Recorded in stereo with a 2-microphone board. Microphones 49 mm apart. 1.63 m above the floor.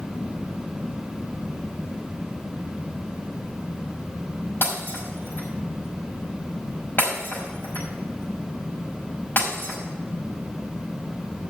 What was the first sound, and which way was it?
Breaking glass, 50° left (ahead or behind).